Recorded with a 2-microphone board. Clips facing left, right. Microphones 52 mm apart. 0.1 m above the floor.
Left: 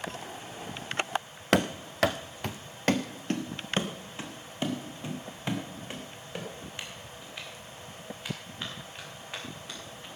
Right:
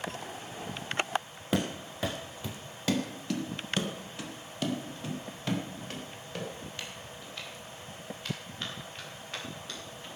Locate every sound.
1.5 s running footsteps: 70° left (ahead or behind), 0.8 m; by 10.1 s 15° left (ahead or behind), 6.5 m